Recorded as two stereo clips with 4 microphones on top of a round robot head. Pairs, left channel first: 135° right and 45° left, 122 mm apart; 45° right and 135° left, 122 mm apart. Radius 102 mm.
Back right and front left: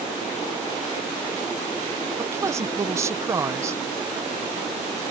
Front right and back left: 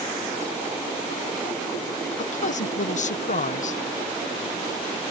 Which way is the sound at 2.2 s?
25° right.